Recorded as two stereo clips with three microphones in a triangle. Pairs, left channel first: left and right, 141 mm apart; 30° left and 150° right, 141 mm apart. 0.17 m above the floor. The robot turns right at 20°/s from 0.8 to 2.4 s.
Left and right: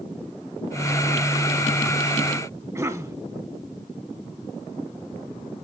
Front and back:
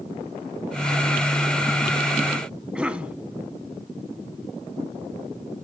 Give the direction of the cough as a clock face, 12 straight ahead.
3 o'clock.